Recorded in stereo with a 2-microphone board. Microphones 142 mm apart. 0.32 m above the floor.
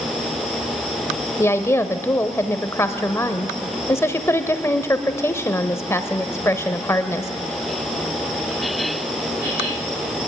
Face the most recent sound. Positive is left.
turn(degrees=20)  # may be behind; listen again after turning